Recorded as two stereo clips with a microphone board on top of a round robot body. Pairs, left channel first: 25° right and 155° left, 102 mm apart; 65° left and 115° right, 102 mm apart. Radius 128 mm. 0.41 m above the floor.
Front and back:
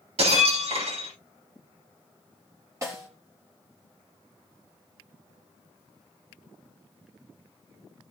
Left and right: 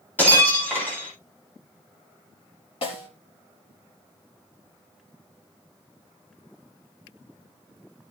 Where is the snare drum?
95° left, 4 m.